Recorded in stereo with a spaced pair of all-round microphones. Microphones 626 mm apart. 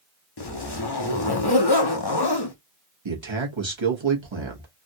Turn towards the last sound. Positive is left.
turn(degrees=-45)  # may be behind; listen again after turning